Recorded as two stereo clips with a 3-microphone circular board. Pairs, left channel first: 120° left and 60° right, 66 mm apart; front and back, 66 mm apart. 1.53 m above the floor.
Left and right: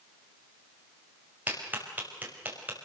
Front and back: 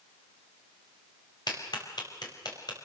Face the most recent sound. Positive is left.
turn(degrees=5)